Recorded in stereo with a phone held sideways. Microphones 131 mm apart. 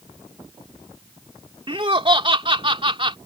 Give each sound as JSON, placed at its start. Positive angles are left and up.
{"t": 1.7, "sound": "laughter", "side_deg": -40}